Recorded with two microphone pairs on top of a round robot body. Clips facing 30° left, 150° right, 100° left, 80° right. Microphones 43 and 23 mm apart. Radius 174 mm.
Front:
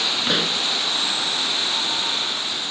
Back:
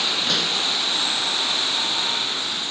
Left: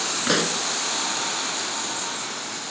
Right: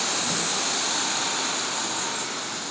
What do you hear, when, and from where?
0.3 s a pop: 95° left